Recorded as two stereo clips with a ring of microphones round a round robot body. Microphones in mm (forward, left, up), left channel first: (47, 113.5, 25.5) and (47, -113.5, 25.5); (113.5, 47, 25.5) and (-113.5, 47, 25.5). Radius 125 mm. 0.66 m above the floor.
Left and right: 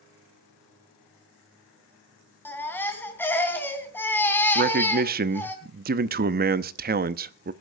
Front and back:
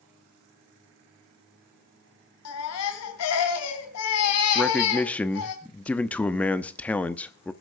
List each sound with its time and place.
2.5 s a baby crying: 10° left, 3 m
4.5 s a man speaking: 80° right, 0.8 m